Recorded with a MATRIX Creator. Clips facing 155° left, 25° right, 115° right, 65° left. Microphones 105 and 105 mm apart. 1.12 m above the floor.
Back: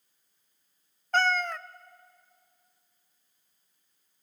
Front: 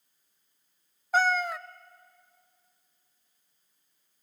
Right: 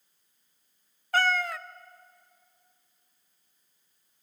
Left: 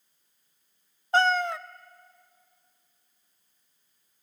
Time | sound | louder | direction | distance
1.1 | a cat meowing | front 1 dB, left 3 dB | 50° left | 0.6 m